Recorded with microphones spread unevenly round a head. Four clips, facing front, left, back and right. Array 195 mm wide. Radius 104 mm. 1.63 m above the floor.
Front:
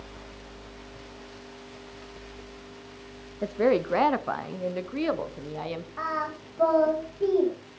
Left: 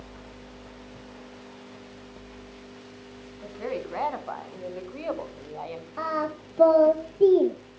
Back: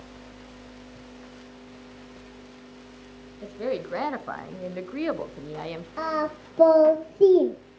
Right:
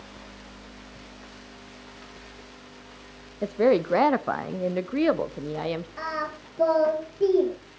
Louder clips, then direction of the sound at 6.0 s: Left 3 dB, back 5 dB; 160° left.